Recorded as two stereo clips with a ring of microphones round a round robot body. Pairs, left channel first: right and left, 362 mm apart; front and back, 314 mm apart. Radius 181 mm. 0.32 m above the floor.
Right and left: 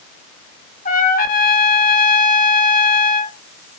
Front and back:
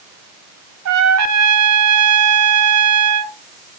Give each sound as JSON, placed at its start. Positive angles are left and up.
{"t": 0.8, "sound": "a trumpet", "azimuth_deg": -155, "distance_m": 0.9}